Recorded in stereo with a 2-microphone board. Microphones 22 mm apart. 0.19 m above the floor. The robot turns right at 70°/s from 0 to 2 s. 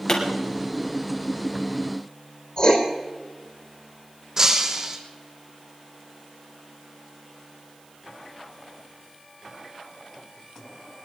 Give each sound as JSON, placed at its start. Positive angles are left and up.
{"t": 0.1, "sound": "a pop", "side_deg": 40, "distance_m": 4.0}
{"t": 2.6, "sound": "writing", "side_deg": 40, "distance_m": 3.5}
{"t": 4.4, "sound": "breaking glass", "side_deg": -25, "distance_m": 2.0}